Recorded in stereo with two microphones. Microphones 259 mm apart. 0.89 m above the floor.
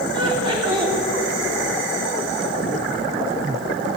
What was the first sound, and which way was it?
Laughter, 20° right (ahead or behind).